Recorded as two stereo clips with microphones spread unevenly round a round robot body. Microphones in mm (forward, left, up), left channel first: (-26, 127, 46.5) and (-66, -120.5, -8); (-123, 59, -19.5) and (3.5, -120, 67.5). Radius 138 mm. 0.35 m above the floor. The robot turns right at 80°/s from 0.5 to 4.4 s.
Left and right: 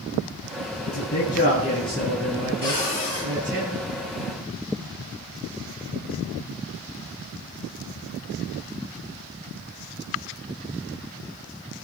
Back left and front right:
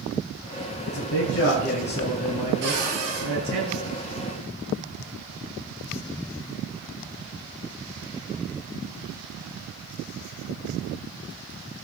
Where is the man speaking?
90° left, 4 m; by 3.6 s 50° right, 4 m.